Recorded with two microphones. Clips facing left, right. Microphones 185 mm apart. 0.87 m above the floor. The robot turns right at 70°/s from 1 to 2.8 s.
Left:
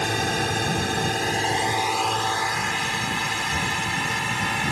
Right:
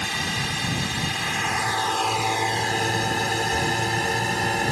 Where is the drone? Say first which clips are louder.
Left 6 dB; 55° left (ahead or behind); by 4.7 s 40° right (ahead or behind).